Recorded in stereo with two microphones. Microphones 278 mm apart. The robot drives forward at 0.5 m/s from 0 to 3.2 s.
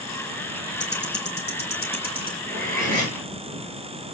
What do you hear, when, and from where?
0.8 s ticking: 40° left (ahead or behind), 3 m; by 2.4 s 35° left (ahead or behind), 3.5 m
2.5 s cutlery clinking: 30° right (ahead or behind), 6 m